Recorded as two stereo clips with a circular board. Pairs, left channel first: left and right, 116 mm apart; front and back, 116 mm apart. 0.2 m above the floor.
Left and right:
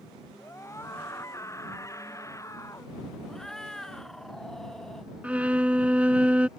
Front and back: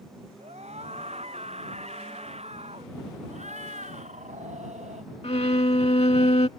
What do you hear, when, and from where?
0.4 s a scream: 155° left
3.3 s a cat meowing: 175° left
5.2 s a violin: 15° right